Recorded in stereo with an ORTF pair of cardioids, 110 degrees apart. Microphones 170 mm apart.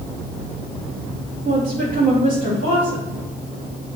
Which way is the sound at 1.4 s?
60° right.